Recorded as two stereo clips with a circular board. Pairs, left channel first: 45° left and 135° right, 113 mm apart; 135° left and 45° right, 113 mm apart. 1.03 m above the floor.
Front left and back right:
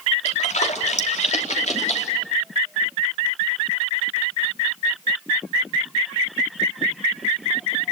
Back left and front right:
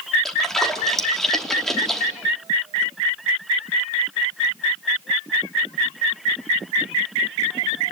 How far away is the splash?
About 3 m.